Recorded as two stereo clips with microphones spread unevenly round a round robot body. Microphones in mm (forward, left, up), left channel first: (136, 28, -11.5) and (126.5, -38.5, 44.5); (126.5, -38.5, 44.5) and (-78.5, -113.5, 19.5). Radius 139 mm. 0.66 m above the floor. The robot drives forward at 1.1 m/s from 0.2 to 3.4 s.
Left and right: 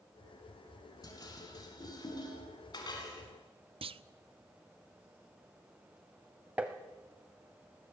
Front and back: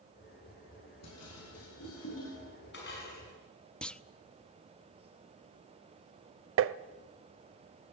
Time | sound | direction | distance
1.0 | dishes clattering | 55° left | 5.5 m
3.8 | a clunk | 70° right | 0.7 m
6.6 | tapping | 135° right | 0.6 m